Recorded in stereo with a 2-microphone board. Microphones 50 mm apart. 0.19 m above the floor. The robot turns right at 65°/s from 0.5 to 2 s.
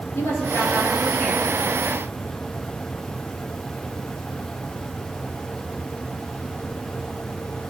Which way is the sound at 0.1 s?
115° left.